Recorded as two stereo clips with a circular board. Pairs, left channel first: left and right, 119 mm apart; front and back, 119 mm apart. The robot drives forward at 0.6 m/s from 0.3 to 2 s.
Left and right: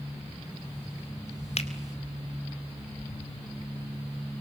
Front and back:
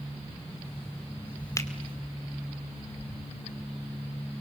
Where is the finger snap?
65° left, 2 m.